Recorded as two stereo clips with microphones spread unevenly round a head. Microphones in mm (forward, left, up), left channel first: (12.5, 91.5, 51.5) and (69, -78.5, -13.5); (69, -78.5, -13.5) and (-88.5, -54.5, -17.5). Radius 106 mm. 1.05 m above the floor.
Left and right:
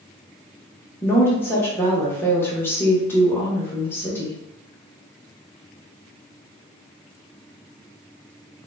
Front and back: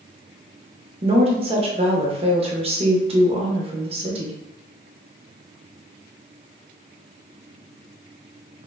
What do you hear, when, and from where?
1.0 s a woman speaking: 155° right, 0.7 m